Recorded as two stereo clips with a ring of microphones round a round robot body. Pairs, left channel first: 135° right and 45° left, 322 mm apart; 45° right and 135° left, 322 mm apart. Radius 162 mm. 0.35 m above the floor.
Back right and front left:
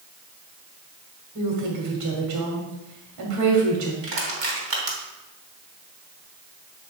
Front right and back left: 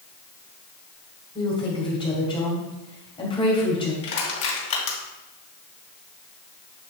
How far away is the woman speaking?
About 2 m.